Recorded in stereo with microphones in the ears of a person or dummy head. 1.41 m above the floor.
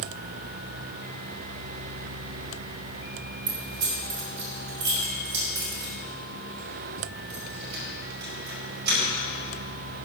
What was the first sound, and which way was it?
Keys jangling, 65° right (ahead or behind).